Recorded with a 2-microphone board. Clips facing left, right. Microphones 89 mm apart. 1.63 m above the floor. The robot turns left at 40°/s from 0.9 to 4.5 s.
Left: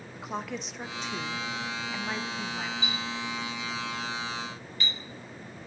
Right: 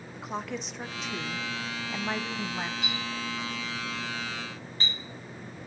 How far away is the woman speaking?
About 0.5 m.